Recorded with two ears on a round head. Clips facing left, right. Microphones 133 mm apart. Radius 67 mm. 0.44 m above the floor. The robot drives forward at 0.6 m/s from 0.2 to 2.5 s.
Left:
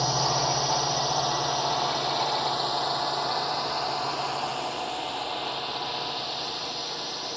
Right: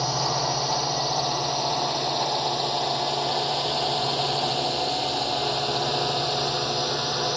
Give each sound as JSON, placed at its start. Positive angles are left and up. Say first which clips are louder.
{"t": 0.0, "sound": "a drone", "louder": "even", "side_deg": 0}